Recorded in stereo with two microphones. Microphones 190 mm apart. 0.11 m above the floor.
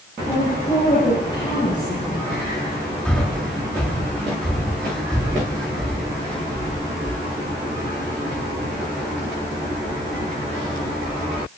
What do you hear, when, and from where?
0.3 s a woman speaking: 25° left (ahead or behind), 9.5 m
3.0 s breathing: 5° left (ahead or behind), 3.5 m